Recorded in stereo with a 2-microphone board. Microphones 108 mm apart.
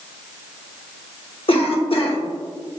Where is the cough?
60° left (ahead or behind), 0.8 m.